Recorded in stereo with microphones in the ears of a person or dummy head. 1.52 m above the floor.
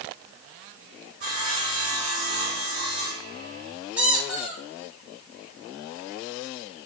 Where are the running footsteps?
No running footsteps in this recording.